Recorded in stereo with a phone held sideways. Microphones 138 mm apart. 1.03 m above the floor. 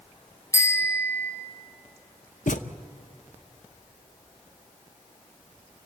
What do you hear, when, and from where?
0.5 s a bicycle bell: 25° left (ahead or behind), 4.5 m
2.5 s a thud: 75° left (ahead or behind), 0.8 m